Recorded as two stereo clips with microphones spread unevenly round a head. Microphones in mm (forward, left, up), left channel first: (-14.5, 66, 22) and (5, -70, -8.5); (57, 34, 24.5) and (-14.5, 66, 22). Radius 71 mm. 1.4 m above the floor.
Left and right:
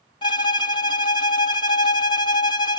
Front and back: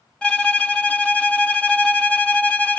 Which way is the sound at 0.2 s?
50° left.